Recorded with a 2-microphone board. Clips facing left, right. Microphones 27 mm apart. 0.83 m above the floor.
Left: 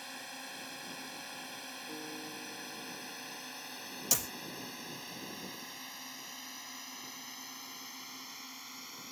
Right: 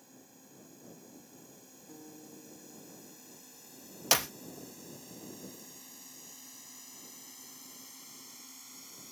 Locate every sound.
0.0 s a drone: 75° left (ahead or behind); by 9.1 s 30° left (ahead or behind)
1.9 s a guitar: 35° left (ahead or behind)
4.1 s a clap: 50° right (ahead or behind)